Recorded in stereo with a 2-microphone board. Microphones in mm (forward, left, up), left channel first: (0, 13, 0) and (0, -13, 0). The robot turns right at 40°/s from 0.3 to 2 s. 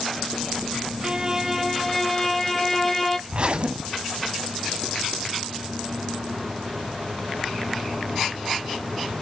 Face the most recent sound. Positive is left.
turn(degrees=-45)  # may be behind; listen again after turning